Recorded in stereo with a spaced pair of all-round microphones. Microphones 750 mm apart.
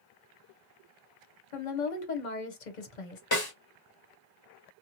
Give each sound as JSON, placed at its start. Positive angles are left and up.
{"t": 1.5, "sound": "a woman speaking", "side_deg": 70, "distance_m": 0.9}
{"t": 3.3, "sound": "a snare drum", "side_deg": 30, "distance_m": 1.3}